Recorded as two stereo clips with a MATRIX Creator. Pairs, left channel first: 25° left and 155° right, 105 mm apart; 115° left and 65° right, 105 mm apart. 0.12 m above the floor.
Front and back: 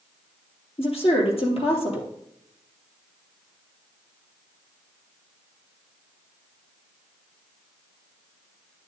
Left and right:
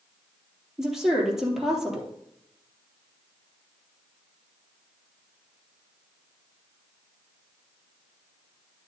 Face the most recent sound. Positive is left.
turn(degrees=20)